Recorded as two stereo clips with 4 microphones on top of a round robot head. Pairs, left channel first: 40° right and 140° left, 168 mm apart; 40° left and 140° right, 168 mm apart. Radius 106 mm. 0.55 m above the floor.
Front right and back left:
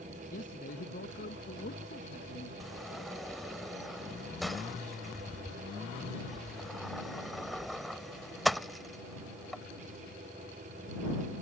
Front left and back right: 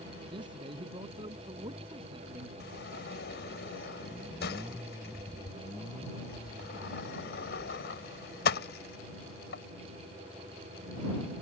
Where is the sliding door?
50° left.